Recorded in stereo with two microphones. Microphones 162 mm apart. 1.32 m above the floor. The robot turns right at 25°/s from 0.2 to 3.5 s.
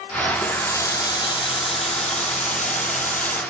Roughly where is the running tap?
Ahead.